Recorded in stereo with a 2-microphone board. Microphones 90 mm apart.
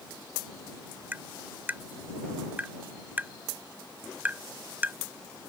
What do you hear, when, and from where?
1.1 s tapping: 20° right (ahead or behind)